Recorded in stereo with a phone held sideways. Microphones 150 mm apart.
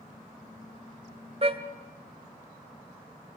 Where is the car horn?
45° right (ahead or behind), 2 m.